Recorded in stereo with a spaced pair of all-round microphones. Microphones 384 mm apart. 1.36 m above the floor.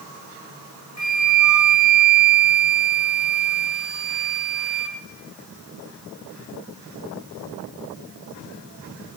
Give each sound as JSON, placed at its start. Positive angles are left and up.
{"t": 1.0, "sound": "a flute", "side_deg": 40, "distance_m": 1.6}